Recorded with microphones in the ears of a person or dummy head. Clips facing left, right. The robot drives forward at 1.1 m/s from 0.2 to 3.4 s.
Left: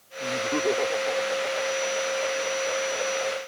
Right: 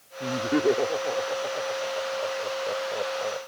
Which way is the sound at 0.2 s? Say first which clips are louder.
Right 3 dB; 25° right (ahead or behind).